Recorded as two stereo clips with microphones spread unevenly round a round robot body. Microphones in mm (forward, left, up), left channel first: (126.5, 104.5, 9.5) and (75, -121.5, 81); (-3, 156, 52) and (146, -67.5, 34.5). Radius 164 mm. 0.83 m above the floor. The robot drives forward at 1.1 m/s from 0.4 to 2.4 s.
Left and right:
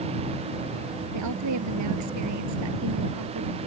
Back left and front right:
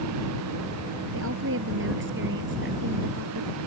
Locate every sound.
1.1 s a woman speaking: 110° right; by 3.6 s 115° right